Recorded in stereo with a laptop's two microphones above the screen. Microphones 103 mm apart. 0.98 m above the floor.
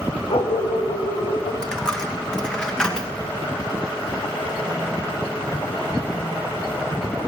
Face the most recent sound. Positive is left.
turn(degrees=5)  # may be behind; listen again after turning